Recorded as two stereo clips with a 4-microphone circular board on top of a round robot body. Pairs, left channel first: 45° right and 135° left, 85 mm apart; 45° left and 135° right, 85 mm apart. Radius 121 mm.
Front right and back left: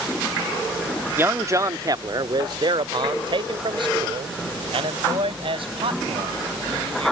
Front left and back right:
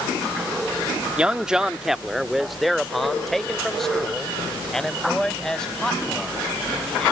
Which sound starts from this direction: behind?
A man speaking, at 1.2 s.